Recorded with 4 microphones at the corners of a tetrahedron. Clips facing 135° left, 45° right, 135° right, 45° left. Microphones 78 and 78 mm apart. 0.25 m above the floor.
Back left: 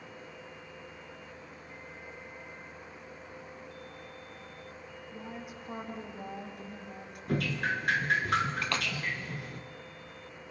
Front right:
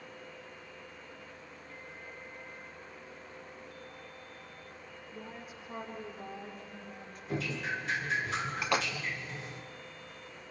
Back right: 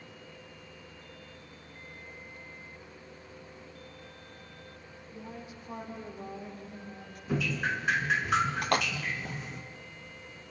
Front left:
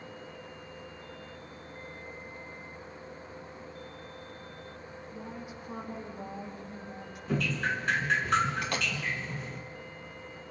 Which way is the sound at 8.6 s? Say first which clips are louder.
Front right 2 dB, back right 4 dB; 115° right.